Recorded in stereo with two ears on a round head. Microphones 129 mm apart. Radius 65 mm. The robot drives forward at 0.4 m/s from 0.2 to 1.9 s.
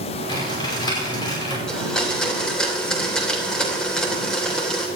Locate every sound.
0.3 s typing on a keyboard: 35° left (ahead or behind), 5.5 m; by 1.6 s 30° left (ahead or behind), 6 m
1.7 s a blender: 5° left (ahead or behind), 2.5 m